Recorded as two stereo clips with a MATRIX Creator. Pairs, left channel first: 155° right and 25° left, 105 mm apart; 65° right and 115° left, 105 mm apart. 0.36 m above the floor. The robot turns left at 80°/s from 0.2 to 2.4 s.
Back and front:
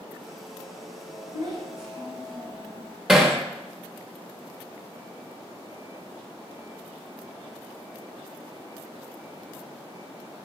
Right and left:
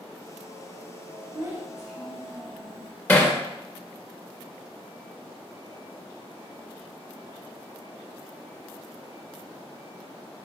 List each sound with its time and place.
1.3 s a child speaking: 65° left, 1.7 m; by 2.9 s 20° right, 1.7 m
3.1 s hammering: 60° right, 0.7 m